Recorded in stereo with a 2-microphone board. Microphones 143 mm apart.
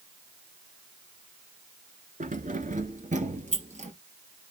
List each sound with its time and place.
2.2 s keys jangling: 65° right (ahead or behind), 1.7 m; by 3.9 s 55° right (ahead or behind), 3 m